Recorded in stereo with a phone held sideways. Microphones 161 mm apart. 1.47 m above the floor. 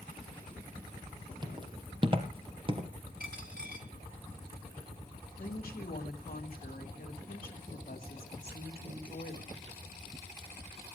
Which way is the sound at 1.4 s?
30° right (ahead or behind).